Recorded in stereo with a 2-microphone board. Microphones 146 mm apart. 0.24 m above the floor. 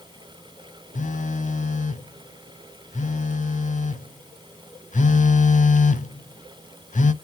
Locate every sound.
0.9 s a phone buzzing: 60° left (ahead or behind), 0.6 m